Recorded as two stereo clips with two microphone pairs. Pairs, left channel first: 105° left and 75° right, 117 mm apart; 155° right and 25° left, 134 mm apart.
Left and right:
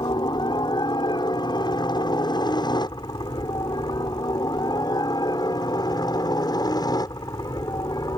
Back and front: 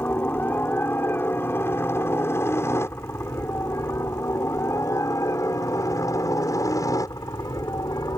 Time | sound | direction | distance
0.0 | a helicopter | 135° left | ?